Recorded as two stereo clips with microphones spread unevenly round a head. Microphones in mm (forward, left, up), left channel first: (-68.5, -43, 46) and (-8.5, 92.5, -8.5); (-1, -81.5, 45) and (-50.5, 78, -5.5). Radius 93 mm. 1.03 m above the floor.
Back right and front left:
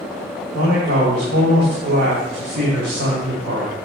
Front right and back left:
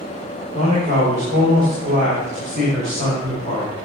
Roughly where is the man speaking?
Ahead left.